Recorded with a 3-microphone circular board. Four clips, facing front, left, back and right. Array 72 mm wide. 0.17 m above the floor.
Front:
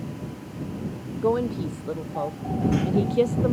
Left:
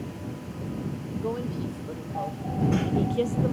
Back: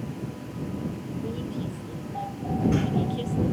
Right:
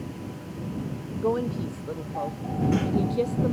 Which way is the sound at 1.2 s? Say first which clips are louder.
Right 6 dB, front 12 dB; 20° right.